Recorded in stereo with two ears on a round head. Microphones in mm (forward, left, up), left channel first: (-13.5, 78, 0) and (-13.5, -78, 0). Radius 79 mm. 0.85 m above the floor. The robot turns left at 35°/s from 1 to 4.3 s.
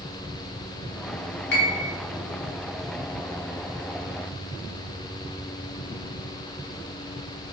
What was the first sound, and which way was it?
A piano, 65° left (ahead or behind).